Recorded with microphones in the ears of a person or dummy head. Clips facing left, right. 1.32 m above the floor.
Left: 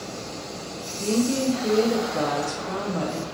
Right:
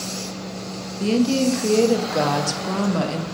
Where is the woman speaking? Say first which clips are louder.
Right 4 dB; 70° right (ahead or behind), 0.6 m.